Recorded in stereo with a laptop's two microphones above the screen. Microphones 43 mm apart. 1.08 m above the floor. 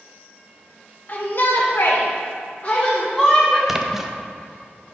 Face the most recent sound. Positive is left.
turn(degrees=-10)  # may be behind; listen again after turning